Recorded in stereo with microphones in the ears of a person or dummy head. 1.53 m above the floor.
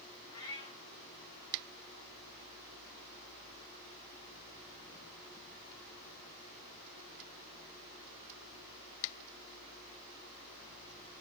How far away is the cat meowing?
About 0.7 m.